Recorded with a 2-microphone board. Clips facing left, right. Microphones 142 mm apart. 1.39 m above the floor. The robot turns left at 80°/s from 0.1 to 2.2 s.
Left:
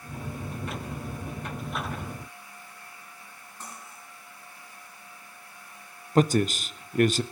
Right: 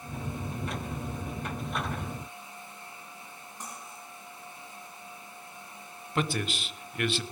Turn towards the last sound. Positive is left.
turn(degrees=45)  # may be behind; listen again after turning